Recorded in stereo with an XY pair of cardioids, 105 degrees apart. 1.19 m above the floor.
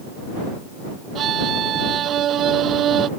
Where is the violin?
65° right.